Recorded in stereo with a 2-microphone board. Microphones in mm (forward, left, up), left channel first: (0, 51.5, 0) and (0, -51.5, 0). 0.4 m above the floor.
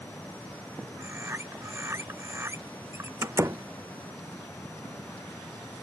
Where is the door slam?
30° right (ahead or behind).